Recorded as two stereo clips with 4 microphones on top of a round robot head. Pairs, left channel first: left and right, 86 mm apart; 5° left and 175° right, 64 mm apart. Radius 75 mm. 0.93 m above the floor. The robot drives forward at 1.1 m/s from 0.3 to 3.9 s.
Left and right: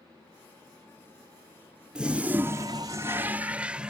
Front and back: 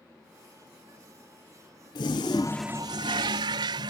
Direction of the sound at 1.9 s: 15° right.